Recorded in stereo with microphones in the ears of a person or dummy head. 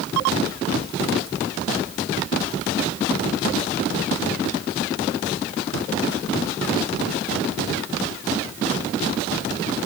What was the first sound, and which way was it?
Only background noise.